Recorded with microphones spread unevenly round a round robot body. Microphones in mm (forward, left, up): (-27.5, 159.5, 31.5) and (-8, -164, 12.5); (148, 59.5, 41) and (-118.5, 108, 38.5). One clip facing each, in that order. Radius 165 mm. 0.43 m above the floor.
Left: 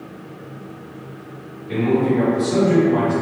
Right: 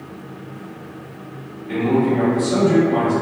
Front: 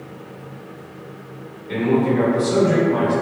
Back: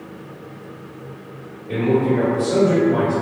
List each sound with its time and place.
1.7 s a man speaking: 105° right, 1.8 m